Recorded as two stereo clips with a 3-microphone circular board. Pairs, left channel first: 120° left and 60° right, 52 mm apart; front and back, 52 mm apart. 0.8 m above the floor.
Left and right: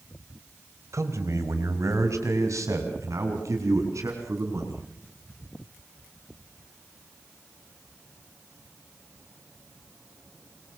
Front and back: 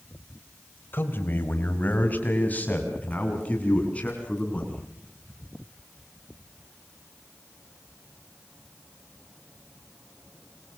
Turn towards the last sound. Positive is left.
turn(degrees=-60)